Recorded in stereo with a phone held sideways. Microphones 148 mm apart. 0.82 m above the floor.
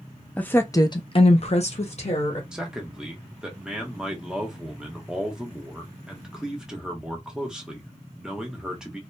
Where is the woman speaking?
10° left (ahead or behind), 0.6 m; by 2.4 s 45° left (ahead or behind), 0.9 m.